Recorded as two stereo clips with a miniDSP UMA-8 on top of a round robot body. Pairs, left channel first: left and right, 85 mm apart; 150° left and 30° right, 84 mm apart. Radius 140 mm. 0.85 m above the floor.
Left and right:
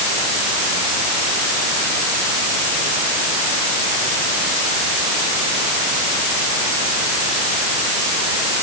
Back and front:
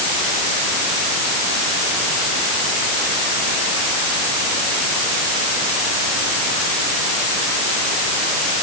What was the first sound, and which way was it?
Only background noise.